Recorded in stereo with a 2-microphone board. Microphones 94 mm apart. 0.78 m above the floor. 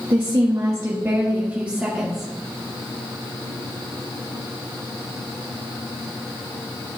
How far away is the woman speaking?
About 1.3 m.